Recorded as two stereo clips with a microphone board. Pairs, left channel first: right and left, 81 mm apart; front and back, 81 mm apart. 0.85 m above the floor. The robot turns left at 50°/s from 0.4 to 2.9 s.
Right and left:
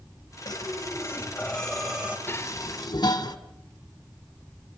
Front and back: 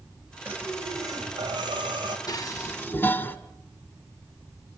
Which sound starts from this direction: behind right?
Breathing, at 0.5 s.